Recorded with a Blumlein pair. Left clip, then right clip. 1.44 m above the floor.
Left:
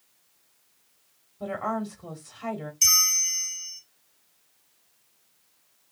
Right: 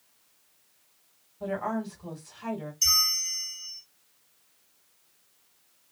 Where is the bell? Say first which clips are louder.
Left 3 dB; 25° left, 0.7 m.